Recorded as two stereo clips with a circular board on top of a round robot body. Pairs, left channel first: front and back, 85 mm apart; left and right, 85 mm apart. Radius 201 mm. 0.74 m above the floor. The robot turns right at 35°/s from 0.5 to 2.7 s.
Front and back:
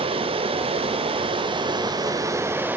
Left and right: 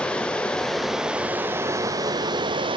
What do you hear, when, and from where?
0.0 s running water: 170° left, 0.9 m; by 2.8 s 115° right, 0.9 m